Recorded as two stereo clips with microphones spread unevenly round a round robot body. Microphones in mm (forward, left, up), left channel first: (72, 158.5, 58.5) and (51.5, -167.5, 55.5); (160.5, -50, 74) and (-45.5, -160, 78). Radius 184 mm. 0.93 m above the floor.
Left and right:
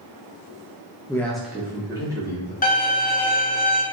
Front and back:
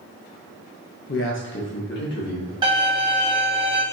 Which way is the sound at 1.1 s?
10° left.